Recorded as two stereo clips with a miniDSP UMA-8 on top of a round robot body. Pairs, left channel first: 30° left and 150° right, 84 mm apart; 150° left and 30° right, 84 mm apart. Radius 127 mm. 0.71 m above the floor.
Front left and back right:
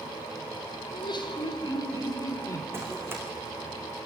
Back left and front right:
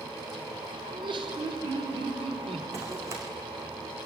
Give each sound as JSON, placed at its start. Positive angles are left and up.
{"t": 0.9, "sound": "laughter", "azimuth_deg": 0, "distance_m": 3.0}
{"t": 2.7, "sound": "running footsteps", "azimuth_deg": -85, "distance_m": 4.0}